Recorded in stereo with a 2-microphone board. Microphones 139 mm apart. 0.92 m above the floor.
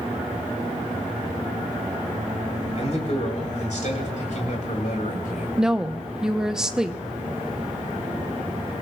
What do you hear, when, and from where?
2.8 s a man speaking: 50° left (ahead or behind), 4.5 m; by 5.5 s 75° left (ahead or behind), 4.5 m
5.6 s a woman speaking: 5° right (ahead or behind), 0.8 m